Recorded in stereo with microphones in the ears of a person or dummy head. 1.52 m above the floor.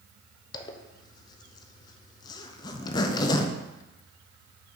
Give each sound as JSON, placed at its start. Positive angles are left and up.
{"t": 0.5, "sound": "a zipper", "side_deg": 25, "distance_m": 0.6}